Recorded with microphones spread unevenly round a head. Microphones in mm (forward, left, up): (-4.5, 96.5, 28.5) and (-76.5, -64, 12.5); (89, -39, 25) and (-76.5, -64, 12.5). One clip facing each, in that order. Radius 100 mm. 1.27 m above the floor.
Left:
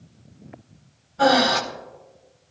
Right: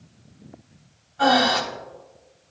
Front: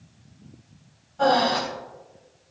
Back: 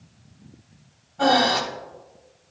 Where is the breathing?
105° left, 1.0 m.